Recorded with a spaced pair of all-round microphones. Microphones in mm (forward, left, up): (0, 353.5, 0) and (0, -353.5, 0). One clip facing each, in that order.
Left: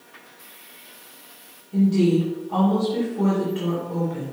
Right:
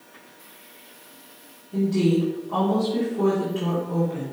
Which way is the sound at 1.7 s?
5° right (ahead or behind).